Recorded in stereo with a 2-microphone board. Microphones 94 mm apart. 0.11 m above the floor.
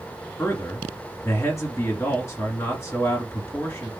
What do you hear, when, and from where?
0.4 s a man speaking: 30° left (ahead or behind), 1.9 m